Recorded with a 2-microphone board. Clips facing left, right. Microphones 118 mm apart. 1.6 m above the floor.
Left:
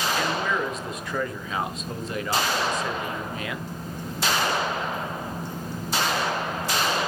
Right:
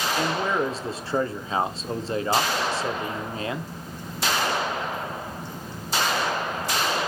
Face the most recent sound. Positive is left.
turn(degrees=-30)  # may be behind; listen again after turning